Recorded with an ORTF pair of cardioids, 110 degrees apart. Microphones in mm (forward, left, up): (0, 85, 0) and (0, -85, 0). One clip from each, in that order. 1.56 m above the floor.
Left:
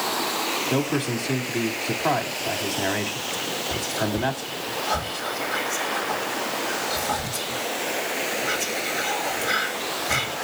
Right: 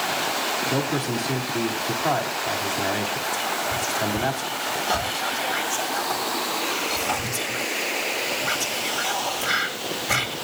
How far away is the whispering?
About 3 m.